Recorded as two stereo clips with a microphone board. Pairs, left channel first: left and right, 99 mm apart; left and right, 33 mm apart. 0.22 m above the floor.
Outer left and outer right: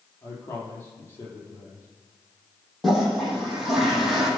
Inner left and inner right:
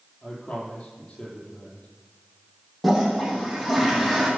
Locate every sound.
0.2 s a man speaking: 25° left (ahead or behind), 7 m
2.8 s a toilet flushing: centre (ahead or behind), 7.5 m